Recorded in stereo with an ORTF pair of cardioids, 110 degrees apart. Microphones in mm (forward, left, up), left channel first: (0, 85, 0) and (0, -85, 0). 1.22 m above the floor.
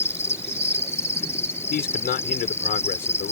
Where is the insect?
15° left.